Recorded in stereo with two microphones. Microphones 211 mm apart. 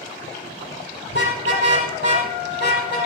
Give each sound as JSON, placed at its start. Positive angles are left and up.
{"t": 1.1, "sound": "a car horn", "side_deg": 60, "distance_m": 6.0}